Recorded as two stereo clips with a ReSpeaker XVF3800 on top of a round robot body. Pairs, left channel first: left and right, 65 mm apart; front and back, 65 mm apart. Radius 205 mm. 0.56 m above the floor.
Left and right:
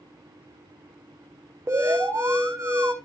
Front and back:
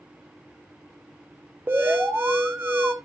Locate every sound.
1.7 s an alarm: 125° right, 2.5 m